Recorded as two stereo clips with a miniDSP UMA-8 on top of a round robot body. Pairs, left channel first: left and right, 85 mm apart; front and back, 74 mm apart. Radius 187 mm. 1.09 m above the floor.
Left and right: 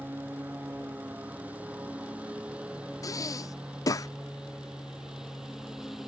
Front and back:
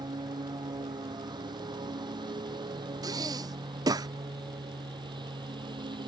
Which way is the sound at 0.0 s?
160° right.